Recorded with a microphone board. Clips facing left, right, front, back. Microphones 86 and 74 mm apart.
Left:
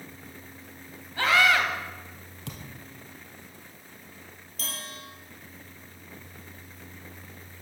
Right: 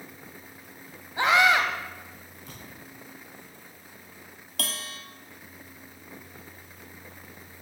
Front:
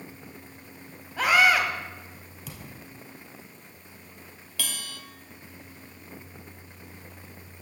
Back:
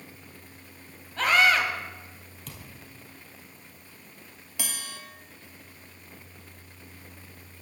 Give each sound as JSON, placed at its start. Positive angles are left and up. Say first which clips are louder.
{"t": 1.2, "sound": "a scream", "louder": "right 1 dB, front 1 dB", "azimuth_deg": -65, "distance_m": 1.6}
{"t": 2.5, "sound": "a thud", "louder": "left 4 dB, front 3 dB", "azimuth_deg": 85, "distance_m": 1.9}
{"t": 4.6, "sound": "a bell", "louder": "right 3 dB, front 1 dB", "azimuth_deg": -110, "distance_m": 1.3}